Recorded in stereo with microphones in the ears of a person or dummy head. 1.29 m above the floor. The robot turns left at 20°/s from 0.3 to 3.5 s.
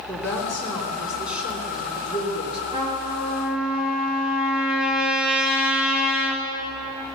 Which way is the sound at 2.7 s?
25° right (ahead or behind).